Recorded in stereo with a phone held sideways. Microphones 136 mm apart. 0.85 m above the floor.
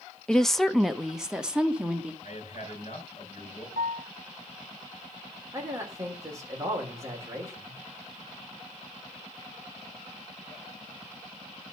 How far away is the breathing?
I don't hear breathing.